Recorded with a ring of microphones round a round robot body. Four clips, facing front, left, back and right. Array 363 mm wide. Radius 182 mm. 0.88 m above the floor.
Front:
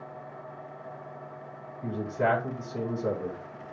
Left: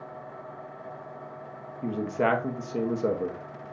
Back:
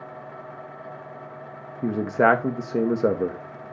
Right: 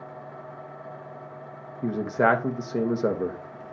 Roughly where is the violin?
No violin in this recording.